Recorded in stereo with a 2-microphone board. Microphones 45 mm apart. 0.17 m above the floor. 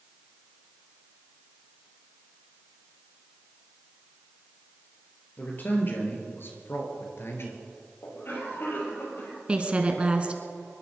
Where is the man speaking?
40° left (ahead or behind), 4 m; by 7.6 s 65° left (ahead or behind), 3 m.